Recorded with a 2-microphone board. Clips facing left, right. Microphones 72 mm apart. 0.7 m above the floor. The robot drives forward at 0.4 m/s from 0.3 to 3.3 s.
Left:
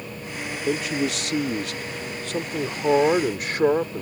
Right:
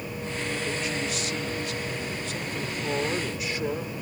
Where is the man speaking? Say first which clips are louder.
Left 5 dB; 65° left (ahead or behind); by 4.0 s 50° left (ahead or behind).